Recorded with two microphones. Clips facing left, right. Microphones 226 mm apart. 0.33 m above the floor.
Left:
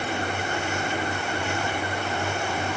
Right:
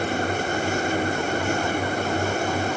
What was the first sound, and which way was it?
Only background noise.